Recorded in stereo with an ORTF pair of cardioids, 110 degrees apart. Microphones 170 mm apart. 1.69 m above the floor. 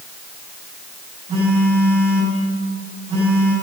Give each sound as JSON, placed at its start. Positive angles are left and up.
{"t": 1.3, "sound": "a phone buzzing", "azimuth_deg": -45, "distance_m": 6.5}